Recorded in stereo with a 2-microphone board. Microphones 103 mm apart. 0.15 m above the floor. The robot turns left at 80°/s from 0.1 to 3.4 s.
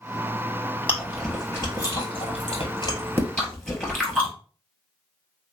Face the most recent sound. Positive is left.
turn(degrees=5)  # may be behind; listen again after turning